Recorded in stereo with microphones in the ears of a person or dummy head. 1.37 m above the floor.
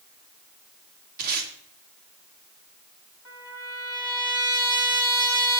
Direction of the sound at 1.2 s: 55° right (ahead or behind).